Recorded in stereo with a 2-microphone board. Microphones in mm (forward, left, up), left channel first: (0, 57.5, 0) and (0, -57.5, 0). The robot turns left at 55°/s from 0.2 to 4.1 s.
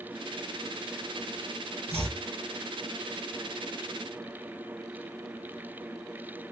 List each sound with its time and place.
1.9 s chopping: 55° right (ahead or behind), 1.8 m; by 2.2 s 70° right (ahead or behind), 1.8 m